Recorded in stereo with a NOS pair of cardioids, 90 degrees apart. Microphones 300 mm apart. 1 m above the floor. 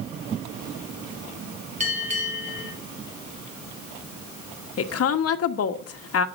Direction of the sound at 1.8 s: 25° right.